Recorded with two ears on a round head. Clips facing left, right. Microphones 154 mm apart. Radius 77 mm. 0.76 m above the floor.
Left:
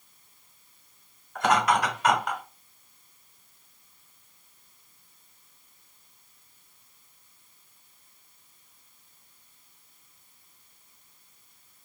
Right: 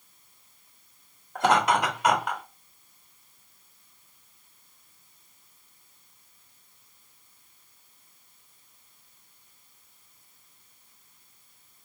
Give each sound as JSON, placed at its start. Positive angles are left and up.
{"t": 1.4, "sound": "laughter", "side_deg": -30, "distance_m": 1.8}